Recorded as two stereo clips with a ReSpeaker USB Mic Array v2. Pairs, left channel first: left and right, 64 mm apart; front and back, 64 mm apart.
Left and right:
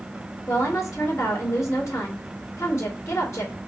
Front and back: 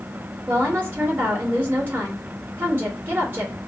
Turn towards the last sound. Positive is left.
turn(degrees=125)